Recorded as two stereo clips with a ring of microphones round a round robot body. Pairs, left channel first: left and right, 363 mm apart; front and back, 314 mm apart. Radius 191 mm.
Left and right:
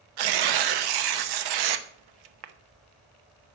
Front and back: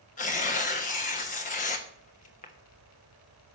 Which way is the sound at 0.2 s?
70° right.